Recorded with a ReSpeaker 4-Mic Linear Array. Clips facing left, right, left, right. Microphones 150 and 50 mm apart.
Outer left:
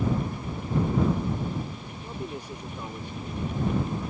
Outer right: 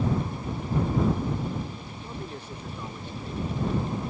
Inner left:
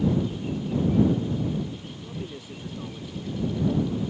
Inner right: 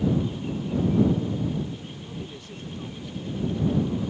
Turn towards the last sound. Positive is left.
turn(degrees=15)  # may be behind; listen again after turning